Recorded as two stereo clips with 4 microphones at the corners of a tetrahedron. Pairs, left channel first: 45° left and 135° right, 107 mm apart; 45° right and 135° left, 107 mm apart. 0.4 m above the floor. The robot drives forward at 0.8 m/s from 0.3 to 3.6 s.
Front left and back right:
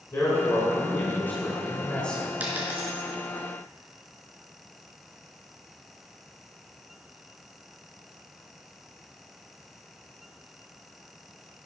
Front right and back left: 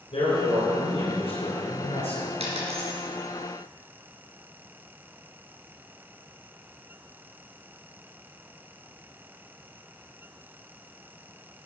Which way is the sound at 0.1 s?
20° right.